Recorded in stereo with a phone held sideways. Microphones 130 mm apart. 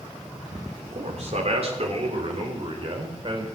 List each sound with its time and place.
0.9 s a man speaking: 60° right (ahead or behind), 3.5 m; by 3.5 s 40° right (ahead or behind), 5 m